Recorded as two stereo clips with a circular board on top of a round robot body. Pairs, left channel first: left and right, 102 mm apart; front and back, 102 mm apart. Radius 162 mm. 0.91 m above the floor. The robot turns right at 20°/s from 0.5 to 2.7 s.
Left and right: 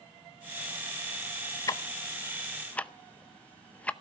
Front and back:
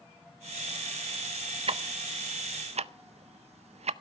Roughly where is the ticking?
Behind left.